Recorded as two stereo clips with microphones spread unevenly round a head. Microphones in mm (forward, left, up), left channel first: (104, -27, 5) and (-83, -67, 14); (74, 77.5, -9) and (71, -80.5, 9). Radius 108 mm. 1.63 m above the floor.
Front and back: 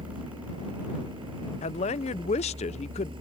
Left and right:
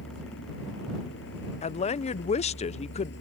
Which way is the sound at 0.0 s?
125° left.